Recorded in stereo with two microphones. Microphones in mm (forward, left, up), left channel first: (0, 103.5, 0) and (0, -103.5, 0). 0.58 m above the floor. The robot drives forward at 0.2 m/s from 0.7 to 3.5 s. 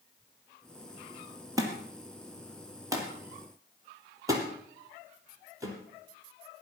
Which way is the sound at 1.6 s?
15° right (ahead or behind).